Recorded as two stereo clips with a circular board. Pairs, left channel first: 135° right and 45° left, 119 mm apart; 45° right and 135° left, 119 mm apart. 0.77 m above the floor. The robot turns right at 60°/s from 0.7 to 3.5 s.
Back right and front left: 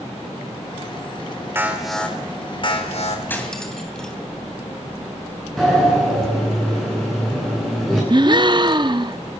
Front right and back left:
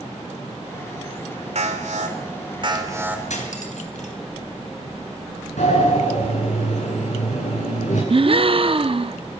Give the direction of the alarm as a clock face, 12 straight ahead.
8 o'clock.